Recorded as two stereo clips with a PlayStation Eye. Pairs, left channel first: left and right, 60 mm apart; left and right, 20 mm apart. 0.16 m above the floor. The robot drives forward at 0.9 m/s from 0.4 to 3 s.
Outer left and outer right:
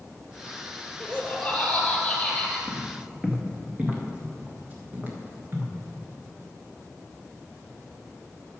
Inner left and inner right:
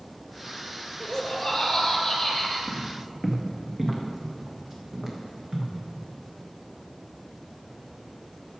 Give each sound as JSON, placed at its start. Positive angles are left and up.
{"t": 1.0, "sound": "laughter", "side_deg": -5, "distance_m": 2.5}
{"t": 2.7, "sound": "footsteps", "side_deg": -10, "distance_m": 2.5}